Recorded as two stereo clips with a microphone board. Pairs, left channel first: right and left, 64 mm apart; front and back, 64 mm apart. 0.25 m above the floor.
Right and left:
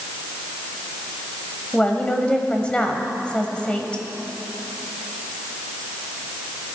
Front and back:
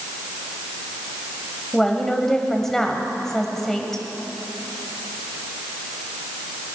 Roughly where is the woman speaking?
Right.